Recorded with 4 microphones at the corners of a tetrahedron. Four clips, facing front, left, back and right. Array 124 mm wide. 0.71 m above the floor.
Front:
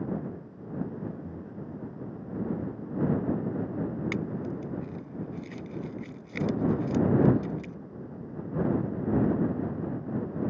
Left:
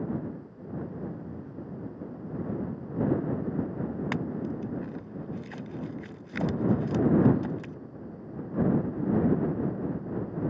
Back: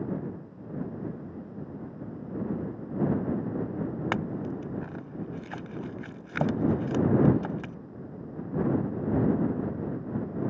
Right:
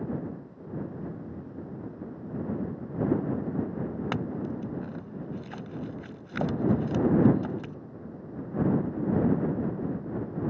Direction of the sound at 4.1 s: 170° right.